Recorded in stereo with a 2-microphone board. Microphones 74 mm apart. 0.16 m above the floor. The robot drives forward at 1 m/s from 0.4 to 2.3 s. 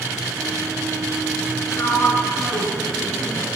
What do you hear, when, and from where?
1.7 s a sliding door: 40° left (ahead or behind), 1.3 m; by 3.5 s 45° left (ahead or behind), 1.2 m